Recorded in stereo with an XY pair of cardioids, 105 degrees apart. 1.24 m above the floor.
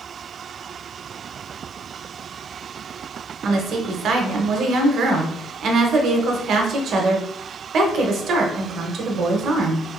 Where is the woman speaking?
60° right, 0.8 m.